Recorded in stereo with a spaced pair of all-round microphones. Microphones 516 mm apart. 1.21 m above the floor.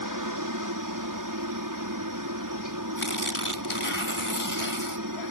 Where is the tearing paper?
65° left (ahead or behind).